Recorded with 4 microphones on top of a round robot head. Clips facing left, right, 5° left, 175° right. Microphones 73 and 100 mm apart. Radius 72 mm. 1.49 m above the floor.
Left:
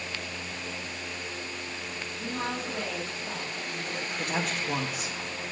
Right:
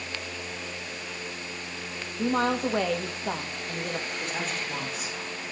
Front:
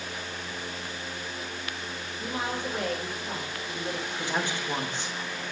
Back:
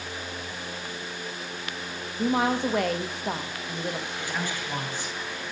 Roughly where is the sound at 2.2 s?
Behind right.